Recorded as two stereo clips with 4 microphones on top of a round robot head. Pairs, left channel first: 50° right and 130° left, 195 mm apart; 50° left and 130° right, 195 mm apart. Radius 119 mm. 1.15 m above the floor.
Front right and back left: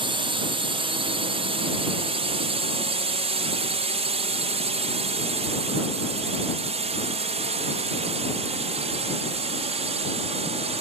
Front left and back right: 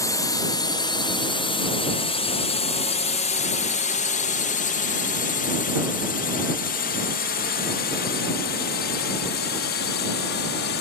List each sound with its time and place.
0.0 s a drone: 105° left; by 10.8 s 75° left